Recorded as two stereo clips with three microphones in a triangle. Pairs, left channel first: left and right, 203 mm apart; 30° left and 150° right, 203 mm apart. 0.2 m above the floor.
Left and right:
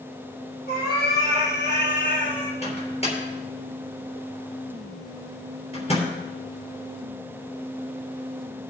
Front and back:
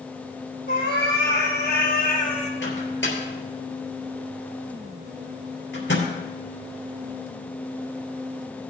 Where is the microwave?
30° left, 3.5 m.